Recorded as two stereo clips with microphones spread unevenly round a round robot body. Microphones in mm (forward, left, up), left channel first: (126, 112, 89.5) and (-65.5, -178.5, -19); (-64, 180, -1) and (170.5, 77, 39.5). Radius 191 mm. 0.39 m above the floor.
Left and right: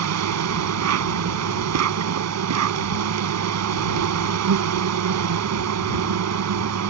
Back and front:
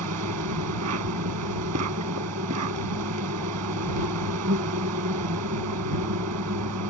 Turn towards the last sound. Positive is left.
turn(degrees=-75)